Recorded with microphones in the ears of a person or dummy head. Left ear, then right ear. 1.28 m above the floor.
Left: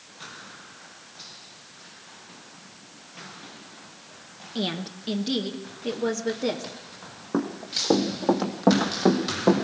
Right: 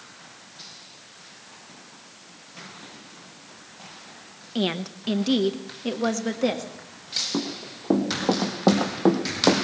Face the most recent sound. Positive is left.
turn(degrees=-35)  # may be behind; listen again after turning